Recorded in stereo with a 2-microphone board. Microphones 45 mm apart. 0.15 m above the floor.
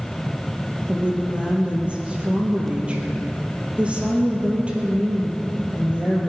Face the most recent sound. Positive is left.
turn(degrees=-25)  # may be behind; listen again after turning